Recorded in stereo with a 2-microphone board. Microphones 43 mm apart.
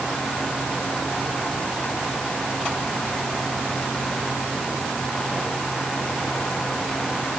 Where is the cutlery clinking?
I don't hear cutlery clinking.